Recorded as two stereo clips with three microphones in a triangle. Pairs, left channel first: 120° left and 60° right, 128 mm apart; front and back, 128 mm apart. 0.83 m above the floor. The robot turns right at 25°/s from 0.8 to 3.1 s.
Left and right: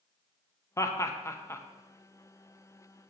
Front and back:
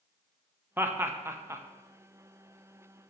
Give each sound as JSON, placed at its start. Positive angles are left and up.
{"t": 0.8, "sound": "laughter", "azimuth_deg": 135, "distance_m": 0.6}